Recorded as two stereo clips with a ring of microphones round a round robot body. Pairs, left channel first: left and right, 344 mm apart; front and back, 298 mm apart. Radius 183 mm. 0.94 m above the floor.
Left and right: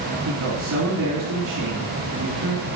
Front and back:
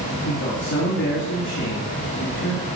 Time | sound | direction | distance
0.2 | a man speaking | 55° right | 2 m